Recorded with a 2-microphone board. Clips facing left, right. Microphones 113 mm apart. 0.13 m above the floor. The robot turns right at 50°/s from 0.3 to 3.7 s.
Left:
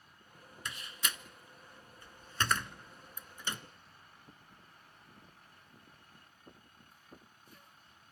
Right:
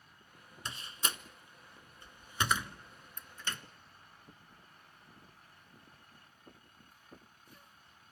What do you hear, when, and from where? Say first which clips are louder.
0.7 s a door slam: right 1 dB; 30° right (ahead or behind), 0.8 m; by 3.6 s 20° left (ahead or behind), 0.8 m